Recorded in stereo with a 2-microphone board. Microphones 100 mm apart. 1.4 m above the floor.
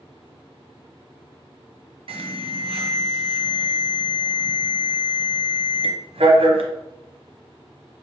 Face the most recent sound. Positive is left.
turn(degrees=-65)  # may be behind; listen again after turning